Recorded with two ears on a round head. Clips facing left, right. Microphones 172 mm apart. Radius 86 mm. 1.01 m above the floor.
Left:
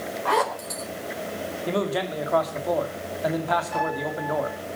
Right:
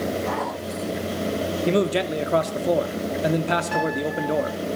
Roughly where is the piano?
Right.